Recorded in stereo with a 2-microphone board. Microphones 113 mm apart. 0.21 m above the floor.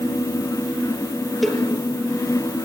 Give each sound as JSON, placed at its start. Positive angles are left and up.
{"t": 1.4, "sound": "a cowbell", "side_deg": 0, "distance_m": 4.5}